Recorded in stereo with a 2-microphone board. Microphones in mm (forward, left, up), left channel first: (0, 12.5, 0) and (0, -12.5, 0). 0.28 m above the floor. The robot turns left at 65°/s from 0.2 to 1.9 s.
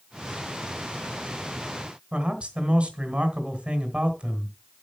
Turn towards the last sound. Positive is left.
turn(degrees=-55)  # may be behind; listen again after turning